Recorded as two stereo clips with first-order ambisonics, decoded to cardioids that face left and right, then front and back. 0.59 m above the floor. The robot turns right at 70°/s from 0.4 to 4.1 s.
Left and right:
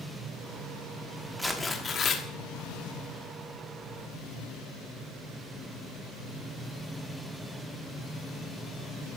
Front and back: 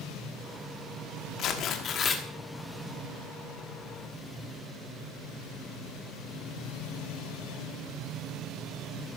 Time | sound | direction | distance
1.4 | tearing paper | straight ahead | 1.5 m